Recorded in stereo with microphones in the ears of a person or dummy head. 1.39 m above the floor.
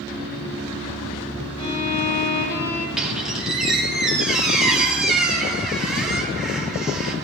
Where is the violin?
30° left (ahead or behind), 2.5 m.